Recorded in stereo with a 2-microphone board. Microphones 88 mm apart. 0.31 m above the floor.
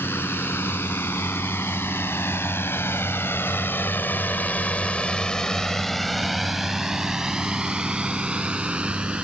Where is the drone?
25° left (ahead or behind); by 9.2 s 10° right (ahead or behind).